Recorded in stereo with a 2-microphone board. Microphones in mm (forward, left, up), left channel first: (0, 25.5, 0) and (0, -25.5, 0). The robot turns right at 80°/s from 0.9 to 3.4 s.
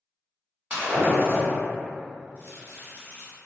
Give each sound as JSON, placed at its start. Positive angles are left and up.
{"t": 0.7, "sound": "breaking glass", "side_deg": -25, "distance_m": 1.1}
{"t": 2.4, "sound": "chopping", "azimuth_deg": 60, "distance_m": 1.3}